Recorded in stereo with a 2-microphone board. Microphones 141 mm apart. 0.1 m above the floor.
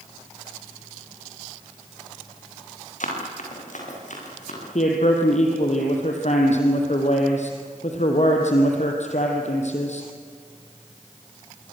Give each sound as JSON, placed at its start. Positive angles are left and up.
{"t": 3.0, "sound": "running footsteps", "side_deg": 65, "distance_m": 9.0}
{"t": 4.8, "sound": "a man speaking", "side_deg": 55, "distance_m": 3.5}